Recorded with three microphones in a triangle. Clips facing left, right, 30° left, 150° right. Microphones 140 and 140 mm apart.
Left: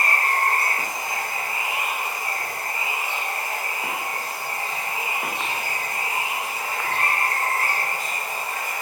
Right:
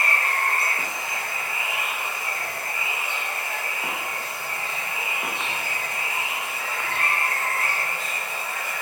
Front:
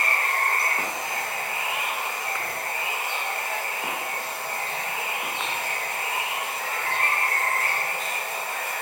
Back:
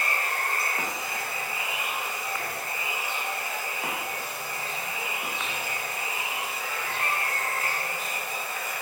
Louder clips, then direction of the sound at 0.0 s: Left 3 dB, front 4 dB; 45° left.